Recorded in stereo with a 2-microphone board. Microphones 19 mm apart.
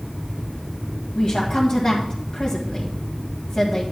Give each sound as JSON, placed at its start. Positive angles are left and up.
{"t": 1.1, "sound": "a woman speaking", "side_deg": 35, "distance_m": 1.9}